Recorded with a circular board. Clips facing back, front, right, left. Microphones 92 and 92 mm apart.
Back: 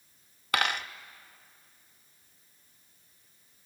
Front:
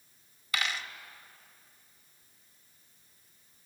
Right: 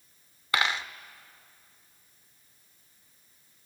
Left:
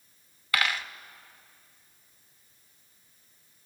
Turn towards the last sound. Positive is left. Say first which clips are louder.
# back 5 dB, right 1 dB
turn(degrees=-155)